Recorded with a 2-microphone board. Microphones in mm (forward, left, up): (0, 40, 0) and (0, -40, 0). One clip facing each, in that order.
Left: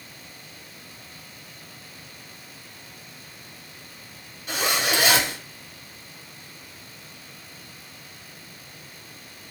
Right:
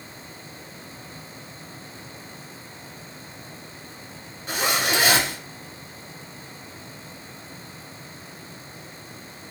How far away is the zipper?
About 1.5 m.